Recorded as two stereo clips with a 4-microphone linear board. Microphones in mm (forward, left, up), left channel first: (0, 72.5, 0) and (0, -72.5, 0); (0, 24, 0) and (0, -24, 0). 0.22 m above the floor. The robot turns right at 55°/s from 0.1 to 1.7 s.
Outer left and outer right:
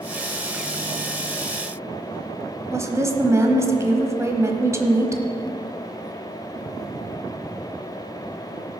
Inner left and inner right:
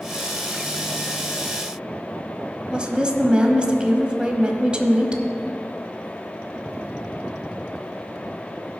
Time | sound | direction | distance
2.7 | a woman speaking | 20° right (ahead or behind) | 1.0 m